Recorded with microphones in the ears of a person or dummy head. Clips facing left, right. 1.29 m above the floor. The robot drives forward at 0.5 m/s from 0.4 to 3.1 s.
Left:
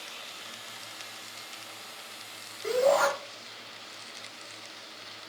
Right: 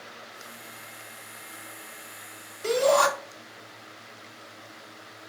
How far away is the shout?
About 2.5 m.